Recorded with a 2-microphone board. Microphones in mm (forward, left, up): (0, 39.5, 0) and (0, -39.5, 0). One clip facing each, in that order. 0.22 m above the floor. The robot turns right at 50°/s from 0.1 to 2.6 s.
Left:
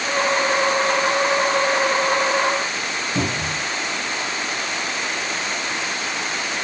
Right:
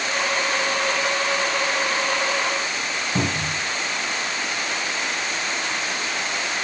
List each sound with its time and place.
3.1 s a cupboard door: 45° right (ahead or behind), 1.9 m